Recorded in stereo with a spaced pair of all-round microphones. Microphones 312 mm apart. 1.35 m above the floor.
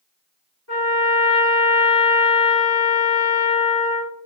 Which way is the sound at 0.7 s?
50° left (ahead or behind).